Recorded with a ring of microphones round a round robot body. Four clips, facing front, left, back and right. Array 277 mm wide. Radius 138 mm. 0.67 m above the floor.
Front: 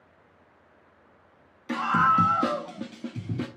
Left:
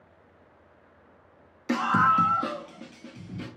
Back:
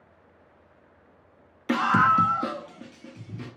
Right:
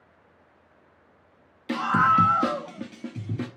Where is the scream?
160° left, 0.8 m; by 3.5 s 45° right, 1.6 m.